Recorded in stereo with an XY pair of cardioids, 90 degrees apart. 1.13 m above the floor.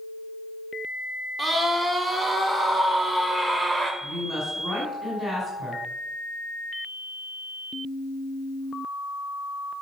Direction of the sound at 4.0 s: 35° right.